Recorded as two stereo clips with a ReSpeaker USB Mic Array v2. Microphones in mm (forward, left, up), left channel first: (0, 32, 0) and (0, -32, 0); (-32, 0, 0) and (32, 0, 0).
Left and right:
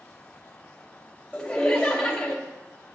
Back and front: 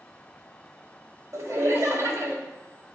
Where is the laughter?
15° left, 2 m.